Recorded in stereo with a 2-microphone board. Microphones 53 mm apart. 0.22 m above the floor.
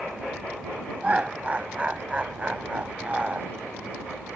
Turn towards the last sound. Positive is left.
turn(degrees=-25)  # may be behind; listen again after turning